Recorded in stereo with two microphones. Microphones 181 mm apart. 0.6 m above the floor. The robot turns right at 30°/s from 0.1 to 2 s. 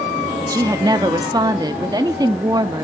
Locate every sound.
0.4 s a woman speaking: 20° right (ahead or behind), 0.8 m